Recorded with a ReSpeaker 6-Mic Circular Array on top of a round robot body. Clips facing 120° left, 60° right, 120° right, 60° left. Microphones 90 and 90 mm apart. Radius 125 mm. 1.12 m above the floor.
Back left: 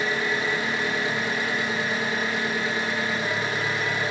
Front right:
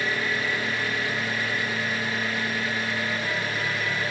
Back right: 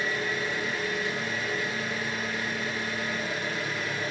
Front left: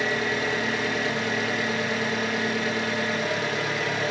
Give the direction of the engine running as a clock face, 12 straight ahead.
10 o'clock.